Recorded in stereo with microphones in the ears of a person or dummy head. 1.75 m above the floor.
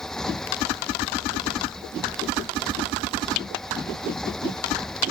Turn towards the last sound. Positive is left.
turn(degrees=5)  # may be behind; listen again after turning